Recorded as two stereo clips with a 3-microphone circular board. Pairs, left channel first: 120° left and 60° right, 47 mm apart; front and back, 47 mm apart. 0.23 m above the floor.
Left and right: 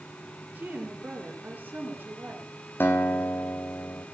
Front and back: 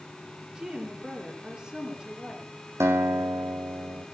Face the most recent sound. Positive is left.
turn(degrees=165)